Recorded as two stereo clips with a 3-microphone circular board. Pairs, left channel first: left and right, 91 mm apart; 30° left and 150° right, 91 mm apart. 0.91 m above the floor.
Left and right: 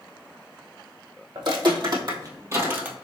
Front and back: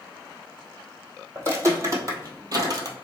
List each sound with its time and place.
1.4 s footsteps: 95° right, 1.7 m; by 3.0 s 160° right, 1.1 m